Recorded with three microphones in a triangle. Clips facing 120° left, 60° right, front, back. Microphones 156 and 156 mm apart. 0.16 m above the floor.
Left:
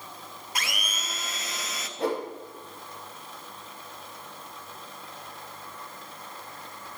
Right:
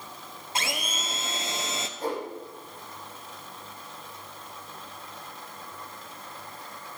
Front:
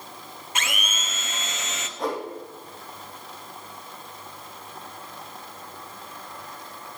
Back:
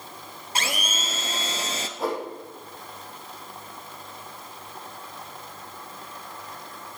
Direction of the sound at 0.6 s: 120° right.